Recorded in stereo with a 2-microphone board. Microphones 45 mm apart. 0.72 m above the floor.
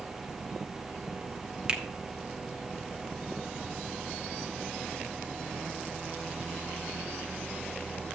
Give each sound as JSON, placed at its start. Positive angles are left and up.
{"t": 1.7, "sound": "a finger snap", "side_deg": -20, "distance_m": 1.3}